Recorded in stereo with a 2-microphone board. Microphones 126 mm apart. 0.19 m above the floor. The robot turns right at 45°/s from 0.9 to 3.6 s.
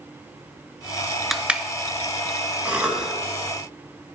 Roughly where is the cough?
Centre.